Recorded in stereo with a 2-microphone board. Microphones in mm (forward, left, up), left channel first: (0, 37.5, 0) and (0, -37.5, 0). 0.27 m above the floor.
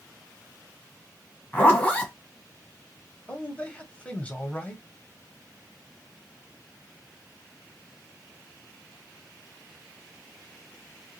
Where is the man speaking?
20° left (ahead or behind), 1.1 m.